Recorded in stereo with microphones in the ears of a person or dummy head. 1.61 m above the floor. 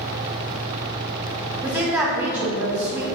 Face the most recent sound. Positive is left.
turn(degrees=-10)  # may be behind; listen again after turning